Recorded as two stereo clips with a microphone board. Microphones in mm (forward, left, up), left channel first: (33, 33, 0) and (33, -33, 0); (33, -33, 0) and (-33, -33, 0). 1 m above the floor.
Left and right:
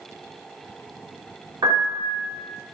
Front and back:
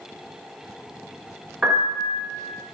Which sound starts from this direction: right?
A piano, at 1.6 s.